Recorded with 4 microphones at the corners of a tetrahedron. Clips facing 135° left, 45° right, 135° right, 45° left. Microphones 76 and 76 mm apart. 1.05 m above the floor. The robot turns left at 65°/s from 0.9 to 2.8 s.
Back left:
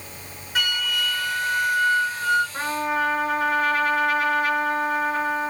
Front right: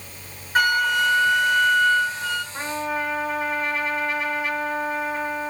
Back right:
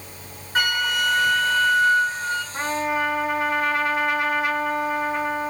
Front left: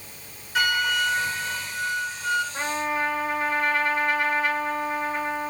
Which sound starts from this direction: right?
A flute, at 0.6 s.